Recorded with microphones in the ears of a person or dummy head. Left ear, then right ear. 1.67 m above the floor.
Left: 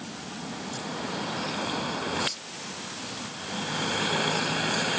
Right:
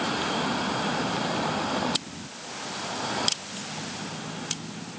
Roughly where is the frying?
No frying in this recording.